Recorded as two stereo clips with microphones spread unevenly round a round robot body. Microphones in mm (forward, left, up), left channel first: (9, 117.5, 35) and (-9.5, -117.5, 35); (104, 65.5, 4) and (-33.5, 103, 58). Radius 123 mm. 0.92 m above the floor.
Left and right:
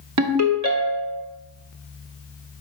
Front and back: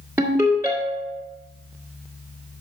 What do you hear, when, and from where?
0.2 s a ringtone: 110° right, 1.4 m